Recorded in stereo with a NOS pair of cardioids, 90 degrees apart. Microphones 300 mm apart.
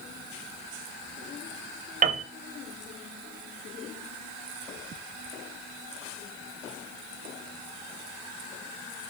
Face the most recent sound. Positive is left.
turn(degrees=-25)